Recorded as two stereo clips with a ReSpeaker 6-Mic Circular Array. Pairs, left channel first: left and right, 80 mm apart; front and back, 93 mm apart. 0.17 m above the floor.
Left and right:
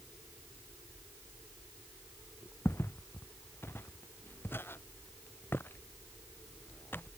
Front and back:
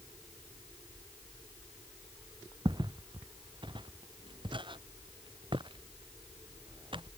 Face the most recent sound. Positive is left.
turn(degrees=155)